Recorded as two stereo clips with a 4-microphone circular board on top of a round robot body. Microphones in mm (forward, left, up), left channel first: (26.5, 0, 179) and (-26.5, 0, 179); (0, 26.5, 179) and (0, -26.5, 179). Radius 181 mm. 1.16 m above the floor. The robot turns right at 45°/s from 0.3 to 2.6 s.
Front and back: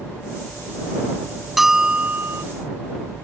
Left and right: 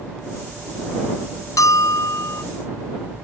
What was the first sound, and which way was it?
A bell, 95° left.